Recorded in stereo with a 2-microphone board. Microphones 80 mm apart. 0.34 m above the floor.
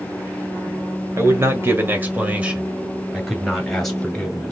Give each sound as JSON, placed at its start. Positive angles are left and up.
{"t": 1.2, "sound": "a man speaking", "side_deg": -40, "distance_m": 1.5}